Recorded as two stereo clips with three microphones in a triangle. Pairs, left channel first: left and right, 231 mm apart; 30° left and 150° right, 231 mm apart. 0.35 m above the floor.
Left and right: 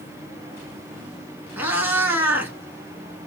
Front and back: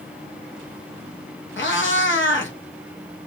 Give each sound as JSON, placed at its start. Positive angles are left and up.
{"t": 1.6, "sound": "a cat meowing", "azimuth_deg": -10, "distance_m": 0.7}